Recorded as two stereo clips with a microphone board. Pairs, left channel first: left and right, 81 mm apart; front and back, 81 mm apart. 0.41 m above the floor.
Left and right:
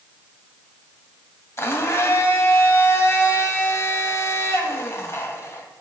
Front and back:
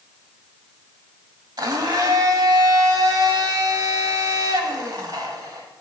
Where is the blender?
145° left, 0.7 m.